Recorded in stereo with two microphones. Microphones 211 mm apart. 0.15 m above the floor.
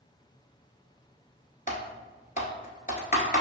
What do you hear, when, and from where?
1.7 s typing on a keyboard: 40° left (ahead or behind), 0.8 m